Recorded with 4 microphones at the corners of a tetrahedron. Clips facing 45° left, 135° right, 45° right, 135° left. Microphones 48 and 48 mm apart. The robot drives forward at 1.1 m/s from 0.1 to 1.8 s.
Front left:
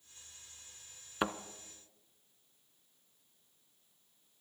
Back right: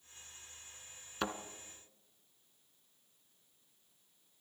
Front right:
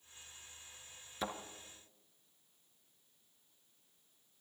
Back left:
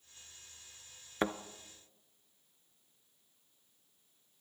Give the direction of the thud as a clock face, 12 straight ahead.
8 o'clock.